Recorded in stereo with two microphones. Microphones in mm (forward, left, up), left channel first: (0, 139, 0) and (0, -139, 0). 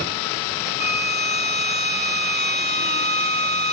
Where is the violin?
35° right (ahead or behind), 1.1 m.